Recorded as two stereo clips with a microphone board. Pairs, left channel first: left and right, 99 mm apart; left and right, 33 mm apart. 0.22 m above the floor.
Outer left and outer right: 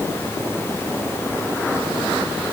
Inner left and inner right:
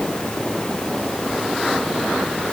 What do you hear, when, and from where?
Only background noise.